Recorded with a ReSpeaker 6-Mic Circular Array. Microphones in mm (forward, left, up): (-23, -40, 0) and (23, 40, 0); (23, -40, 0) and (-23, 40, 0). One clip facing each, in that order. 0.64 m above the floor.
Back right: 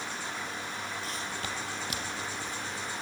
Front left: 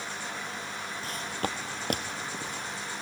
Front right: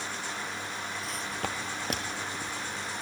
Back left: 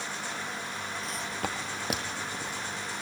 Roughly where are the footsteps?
Ahead left.